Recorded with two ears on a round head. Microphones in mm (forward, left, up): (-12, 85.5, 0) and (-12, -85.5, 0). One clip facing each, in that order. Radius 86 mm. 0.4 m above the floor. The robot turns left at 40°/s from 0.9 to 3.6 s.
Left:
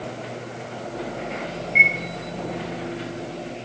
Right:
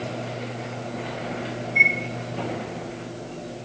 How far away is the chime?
About 5 m.